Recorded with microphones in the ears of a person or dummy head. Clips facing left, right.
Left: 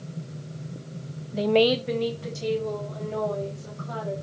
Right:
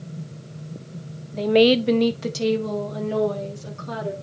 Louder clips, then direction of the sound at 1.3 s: Right 4 dB; 15° left (ahead or behind).